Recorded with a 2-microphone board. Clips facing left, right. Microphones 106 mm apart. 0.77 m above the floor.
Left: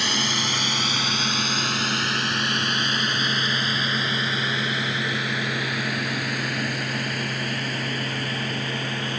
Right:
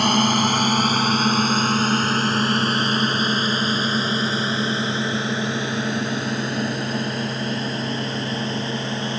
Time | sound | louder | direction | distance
0.0 | a drone | right 9 dB | 50° right (ahead or behind) | ?